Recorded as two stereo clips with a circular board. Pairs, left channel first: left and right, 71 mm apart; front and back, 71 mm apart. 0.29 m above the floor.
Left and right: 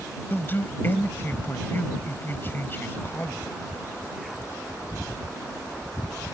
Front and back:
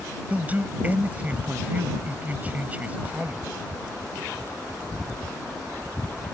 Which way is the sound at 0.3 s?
125° left.